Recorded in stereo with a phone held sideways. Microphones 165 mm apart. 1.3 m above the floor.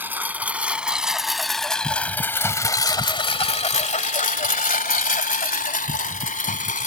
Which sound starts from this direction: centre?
A lawn mower, at 0.0 s.